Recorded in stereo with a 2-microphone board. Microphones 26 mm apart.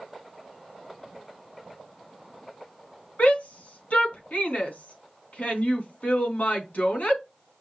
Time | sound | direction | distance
3.2 | a shout | 70° left (ahead or behind) | 3 m